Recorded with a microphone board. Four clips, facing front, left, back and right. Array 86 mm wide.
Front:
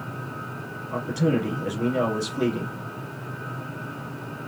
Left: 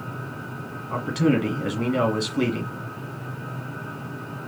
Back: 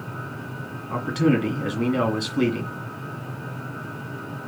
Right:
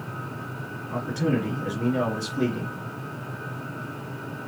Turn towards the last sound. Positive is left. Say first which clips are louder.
# left 4 dB, back 3 dB
turn(degrees=130)